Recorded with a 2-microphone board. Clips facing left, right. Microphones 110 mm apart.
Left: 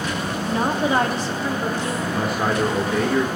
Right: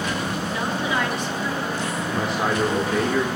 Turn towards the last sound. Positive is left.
turn(degrees=5)  # may be behind; listen again after turning